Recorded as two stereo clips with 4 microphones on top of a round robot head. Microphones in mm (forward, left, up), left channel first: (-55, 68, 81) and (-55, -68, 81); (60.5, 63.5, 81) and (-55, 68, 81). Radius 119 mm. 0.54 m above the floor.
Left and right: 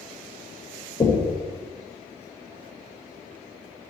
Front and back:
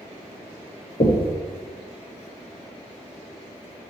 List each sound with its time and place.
1.0 s knocking: 30° left, 2 m